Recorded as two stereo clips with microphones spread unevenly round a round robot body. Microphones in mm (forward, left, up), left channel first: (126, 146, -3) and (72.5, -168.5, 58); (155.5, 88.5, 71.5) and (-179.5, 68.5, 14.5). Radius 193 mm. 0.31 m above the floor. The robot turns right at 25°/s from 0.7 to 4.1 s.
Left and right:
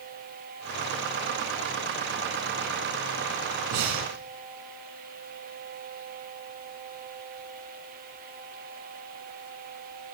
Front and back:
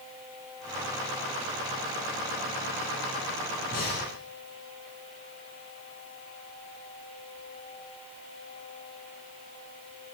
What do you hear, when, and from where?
3.7 s breathing: 70° right, 1.9 m; by 4.1 s 60° right, 1.9 m